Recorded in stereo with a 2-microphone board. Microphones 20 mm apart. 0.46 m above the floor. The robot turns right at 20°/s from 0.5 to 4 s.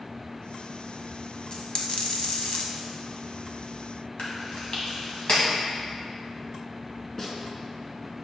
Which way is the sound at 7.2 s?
25° left (ahead or behind).